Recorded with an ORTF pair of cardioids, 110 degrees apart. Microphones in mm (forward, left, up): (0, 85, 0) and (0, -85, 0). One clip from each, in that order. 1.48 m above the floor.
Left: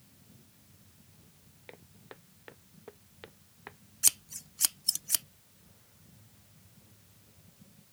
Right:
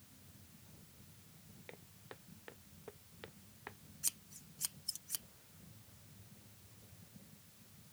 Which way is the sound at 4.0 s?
60° left.